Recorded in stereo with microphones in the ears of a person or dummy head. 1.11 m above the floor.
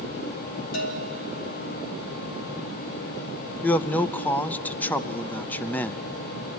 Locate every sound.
0.7 s a bell: 75° left (ahead or behind), 2.0 m
3.6 s a man speaking: 10° left (ahead or behind), 0.5 m